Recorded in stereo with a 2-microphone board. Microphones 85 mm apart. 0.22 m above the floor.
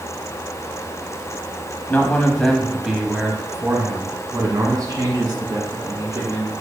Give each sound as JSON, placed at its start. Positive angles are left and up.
{"t": 1.9, "sound": "a man speaking", "side_deg": 20, "distance_m": 1.1}